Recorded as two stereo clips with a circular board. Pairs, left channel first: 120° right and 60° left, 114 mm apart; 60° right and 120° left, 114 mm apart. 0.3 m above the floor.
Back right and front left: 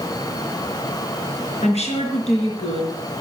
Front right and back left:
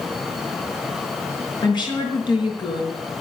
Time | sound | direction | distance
1.6 | a woman speaking | 105° right | 5 m